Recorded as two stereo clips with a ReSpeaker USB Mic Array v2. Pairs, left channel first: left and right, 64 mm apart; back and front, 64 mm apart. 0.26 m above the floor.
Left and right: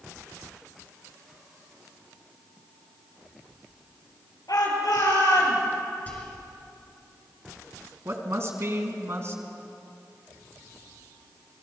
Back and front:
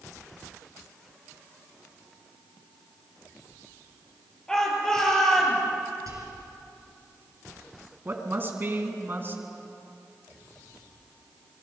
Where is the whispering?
25° left, 4 m.